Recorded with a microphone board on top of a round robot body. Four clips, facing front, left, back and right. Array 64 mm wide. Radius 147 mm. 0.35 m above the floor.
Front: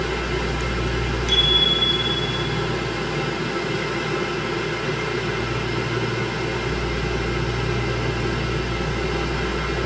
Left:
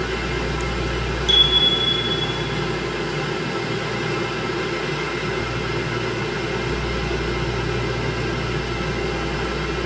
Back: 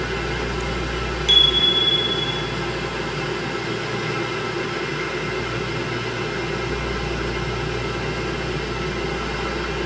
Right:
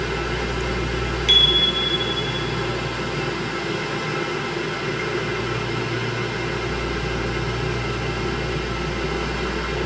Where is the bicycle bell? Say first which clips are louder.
Left 1 dB, back 2 dB; 105° right, 3.5 m; by 2.4 s 110° right, 5 m.